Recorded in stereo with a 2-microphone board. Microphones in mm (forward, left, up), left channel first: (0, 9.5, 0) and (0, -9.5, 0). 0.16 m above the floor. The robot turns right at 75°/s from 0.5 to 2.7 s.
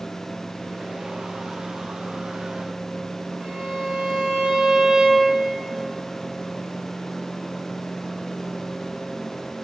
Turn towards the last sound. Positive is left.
turn(degrees=-85)